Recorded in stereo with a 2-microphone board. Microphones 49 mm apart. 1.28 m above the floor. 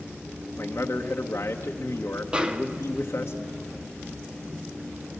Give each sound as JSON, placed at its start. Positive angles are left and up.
{"t": 0.6, "sound": "a man speaking", "side_deg": 60, "distance_m": 1.1}
{"t": 2.3, "sound": "a snare drum", "side_deg": -20, "distance_m": 1.0}